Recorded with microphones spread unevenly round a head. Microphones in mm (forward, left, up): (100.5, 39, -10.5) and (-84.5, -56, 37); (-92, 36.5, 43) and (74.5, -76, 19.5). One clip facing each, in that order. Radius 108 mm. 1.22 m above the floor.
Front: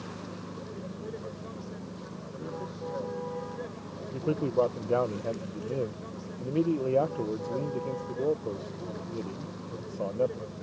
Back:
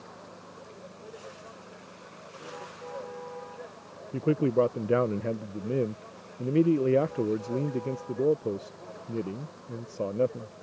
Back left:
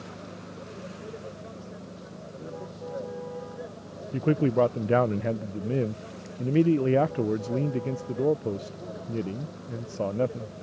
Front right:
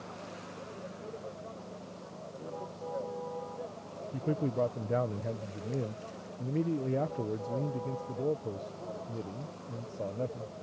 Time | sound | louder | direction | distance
0.0 | a vehicle | front 7 dB, back left 3 dB | 75° left | ?
4.1 | a man speaking | back 3 dB, back left 9 dB | 140° left | ?